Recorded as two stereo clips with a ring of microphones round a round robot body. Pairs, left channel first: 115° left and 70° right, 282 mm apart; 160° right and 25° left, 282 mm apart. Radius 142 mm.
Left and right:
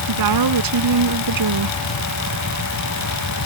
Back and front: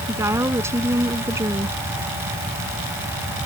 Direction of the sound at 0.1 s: 60° right.